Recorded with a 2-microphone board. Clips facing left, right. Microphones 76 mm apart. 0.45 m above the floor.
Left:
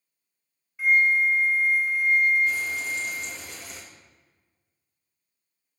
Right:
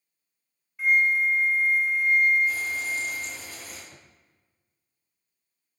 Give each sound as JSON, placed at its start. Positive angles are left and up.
{"t": 0.8, "sound": "a flute", "side_deg": 0, "distance_m": 0.9}
{"t": 2.5, "sound": "frying", "side_deg": 75, "distance_m": 4.0}
{"t": 3.9, "sound": "a drawer", "side_deg": -75, "distance_m": 0.7}